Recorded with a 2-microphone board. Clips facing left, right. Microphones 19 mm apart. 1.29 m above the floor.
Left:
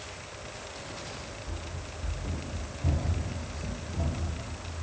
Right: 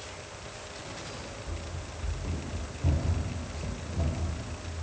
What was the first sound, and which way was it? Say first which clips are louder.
Running footsteps: even; 25° right (ahead or behind).